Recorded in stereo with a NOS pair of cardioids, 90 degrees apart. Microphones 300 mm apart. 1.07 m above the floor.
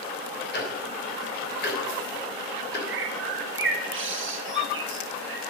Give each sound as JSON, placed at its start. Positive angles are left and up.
{"t": 0.5, "sound": "ticking", "azimuth_deg": 35, "distance_m": 3.0}
{"t": 2.9, "sound": "a bird", "azimuth_deg": -40, "distance_m": 1.5}